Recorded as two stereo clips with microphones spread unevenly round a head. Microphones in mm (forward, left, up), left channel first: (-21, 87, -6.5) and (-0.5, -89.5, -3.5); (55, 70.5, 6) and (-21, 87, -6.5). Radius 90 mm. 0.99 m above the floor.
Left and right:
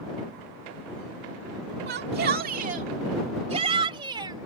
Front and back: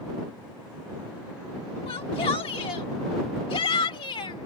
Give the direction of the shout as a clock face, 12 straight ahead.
2 o'clock.